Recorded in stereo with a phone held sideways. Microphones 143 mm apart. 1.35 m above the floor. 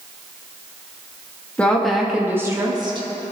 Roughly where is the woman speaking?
Centre.